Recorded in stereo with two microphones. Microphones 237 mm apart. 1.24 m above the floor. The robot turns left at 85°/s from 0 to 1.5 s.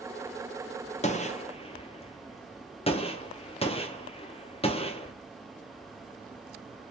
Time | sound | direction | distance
1.0 | a gunshot | 30° left (ahead or behind) | 0.5 m